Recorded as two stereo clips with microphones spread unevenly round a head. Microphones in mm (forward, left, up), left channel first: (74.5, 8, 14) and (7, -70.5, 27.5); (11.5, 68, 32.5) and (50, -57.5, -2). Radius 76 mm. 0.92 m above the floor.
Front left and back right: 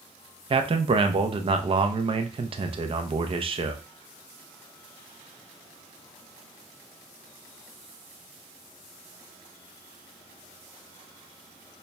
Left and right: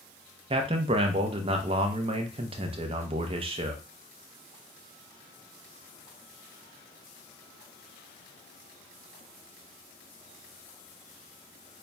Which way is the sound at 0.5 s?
95° right.